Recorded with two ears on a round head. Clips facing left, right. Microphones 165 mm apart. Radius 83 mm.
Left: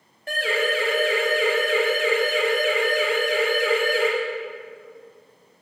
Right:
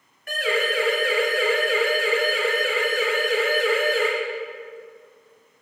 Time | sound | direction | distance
0.3 | a siren | 30° left (ahead or behind) | 5 m